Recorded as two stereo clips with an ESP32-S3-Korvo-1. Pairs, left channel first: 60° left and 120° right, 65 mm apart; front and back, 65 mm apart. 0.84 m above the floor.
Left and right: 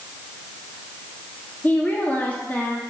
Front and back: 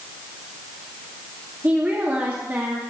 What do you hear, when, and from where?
1.6 s a woman speaking: 120° left, 1.9 m